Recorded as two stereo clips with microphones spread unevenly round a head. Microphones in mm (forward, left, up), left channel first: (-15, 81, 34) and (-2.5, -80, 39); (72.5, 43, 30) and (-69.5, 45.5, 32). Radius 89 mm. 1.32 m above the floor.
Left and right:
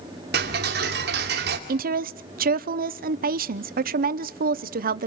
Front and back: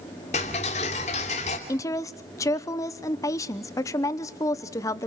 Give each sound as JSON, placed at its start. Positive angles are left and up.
{"t": 0.3, "sound": "ticking", "azimuth_deg": -55, "distance_m": 2.5}
{"t": 1.7, "sound": "a woman speaking", "azimuth_deg": -65, "distance_m": 0.8}